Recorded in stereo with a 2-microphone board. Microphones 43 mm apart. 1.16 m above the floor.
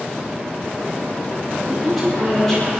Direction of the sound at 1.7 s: 15° right (ahead or behind).